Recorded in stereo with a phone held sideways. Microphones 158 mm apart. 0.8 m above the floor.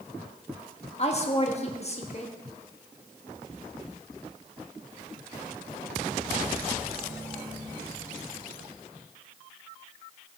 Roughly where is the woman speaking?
Left.